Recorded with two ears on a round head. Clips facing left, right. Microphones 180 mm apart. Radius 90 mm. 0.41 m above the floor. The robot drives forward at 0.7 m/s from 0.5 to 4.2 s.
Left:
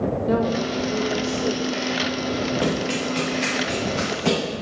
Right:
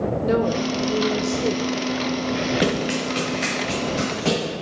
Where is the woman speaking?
30° right (ahead or behind), 1.0 m.